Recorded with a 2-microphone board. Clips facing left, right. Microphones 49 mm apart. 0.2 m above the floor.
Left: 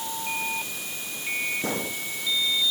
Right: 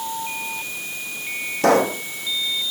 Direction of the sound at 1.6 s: 80° right.